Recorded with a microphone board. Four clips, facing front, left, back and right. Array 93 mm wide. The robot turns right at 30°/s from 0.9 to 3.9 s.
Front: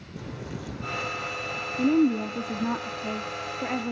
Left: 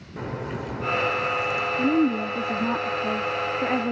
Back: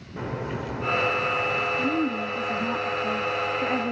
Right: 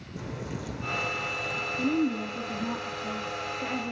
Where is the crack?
140° left, 2 m; by 1.7 s 160° left, 2 m.